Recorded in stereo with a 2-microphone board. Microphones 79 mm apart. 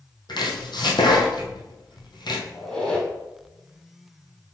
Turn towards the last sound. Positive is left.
turn(degrees=10)  # may be behind; listen again after turning